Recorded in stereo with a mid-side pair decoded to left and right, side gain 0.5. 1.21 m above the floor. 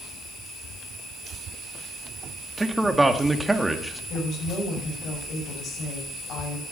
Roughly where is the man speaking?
Ahead.